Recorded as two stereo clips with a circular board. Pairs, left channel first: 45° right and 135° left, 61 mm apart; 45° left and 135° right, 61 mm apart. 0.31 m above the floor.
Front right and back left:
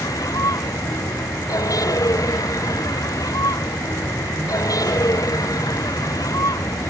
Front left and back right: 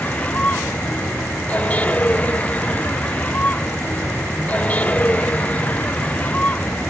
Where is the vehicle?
20° right.